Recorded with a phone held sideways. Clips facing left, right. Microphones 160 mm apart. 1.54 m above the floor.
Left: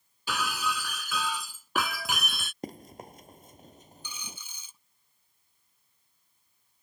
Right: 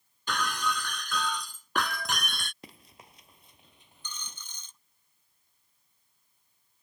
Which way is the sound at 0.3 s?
5° left (ahead or behind).